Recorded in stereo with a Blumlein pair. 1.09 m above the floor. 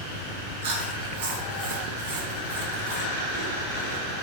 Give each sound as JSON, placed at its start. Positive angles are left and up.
{"t": 0.6, "sound": "chewing", "azimuth_deg": -50, "distance_m": 0.8}